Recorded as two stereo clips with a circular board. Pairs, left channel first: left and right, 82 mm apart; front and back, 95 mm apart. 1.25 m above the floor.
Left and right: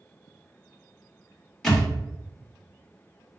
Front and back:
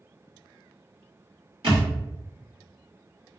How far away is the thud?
About 1.9 m.